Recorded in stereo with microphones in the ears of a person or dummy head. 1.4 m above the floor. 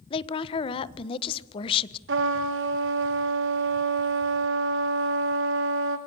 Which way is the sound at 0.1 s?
35° left (ahead or behind).